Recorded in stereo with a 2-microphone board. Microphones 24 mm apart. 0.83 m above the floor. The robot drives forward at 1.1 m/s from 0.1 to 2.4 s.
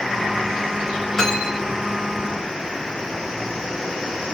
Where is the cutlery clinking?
20° left (ahead or behind), 5.5 m.